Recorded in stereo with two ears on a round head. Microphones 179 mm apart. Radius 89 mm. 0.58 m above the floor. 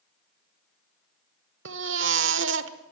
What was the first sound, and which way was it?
A baby crying, 65° right (ahead or behind).